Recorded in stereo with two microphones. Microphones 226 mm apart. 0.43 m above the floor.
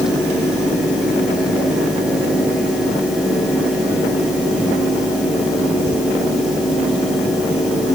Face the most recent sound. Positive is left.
No sound to turn to.